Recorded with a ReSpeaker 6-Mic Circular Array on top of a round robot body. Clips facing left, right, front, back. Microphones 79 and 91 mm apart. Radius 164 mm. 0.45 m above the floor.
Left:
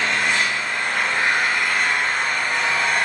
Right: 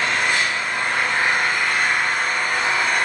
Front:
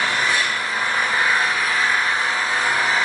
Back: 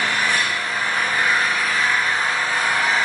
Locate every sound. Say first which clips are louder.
0.0 s an engine running: even, even; 65° right, 4.5 m